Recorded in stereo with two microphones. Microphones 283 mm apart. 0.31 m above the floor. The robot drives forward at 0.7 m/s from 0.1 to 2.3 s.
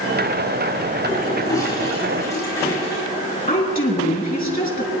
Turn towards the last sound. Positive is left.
turn(degrees=35)  # may be behind; listen again after turning